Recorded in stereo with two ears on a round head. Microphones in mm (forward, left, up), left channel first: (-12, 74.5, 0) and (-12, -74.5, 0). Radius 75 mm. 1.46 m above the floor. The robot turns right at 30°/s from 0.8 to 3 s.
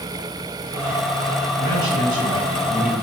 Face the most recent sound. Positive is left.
turn(degrees=-45)